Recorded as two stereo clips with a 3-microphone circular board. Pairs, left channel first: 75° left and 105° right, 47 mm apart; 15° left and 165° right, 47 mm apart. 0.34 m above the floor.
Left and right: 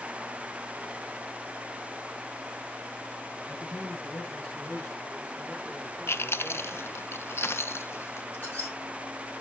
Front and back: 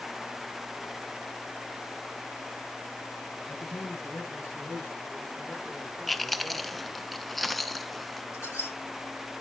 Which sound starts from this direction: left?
Chewing, at 6.1 s.